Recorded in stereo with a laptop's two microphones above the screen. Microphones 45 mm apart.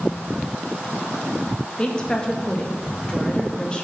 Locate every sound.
1.8 s a woman speaking: 20° left (ahead or behind), 1.1 m